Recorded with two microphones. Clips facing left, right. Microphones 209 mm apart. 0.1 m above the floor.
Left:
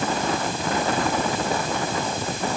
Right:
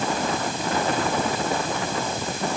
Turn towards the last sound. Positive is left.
No sound to turn to.